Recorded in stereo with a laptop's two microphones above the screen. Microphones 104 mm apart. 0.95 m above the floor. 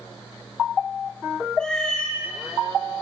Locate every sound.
1.6 s a cat meowing: 5° left (ahead or behind), 2.0 m